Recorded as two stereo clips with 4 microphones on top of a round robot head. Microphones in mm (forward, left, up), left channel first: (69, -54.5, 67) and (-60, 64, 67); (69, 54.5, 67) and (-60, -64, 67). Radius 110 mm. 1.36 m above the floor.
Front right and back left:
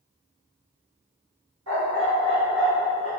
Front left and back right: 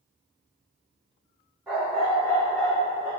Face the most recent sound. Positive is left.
turn(degrees=120)